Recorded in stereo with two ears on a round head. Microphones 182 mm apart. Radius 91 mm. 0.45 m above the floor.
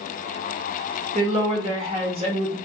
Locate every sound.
1.1 s a woman speaking: 30° right (ahead or behind), 0.9 m